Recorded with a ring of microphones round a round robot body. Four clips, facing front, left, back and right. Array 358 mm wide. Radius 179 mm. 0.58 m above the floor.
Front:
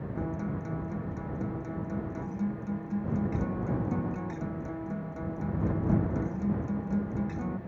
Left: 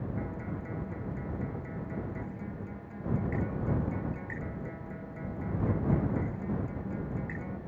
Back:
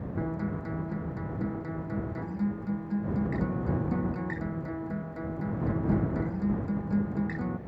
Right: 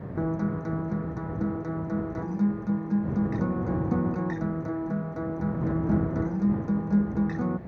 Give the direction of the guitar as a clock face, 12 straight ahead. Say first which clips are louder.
Right 9 dB, back 2 dB; 3 o'clock.